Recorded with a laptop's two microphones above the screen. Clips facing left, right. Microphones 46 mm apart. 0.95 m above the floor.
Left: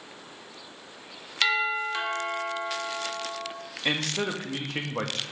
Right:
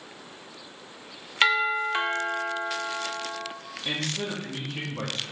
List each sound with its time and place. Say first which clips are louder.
1.4 s a doorbell: right 3 dB; 30° right (ahead or behind), 0.8 m
3.9 s a man speaking: left 3 dB; 70° left (ahead or behind), 1.0 m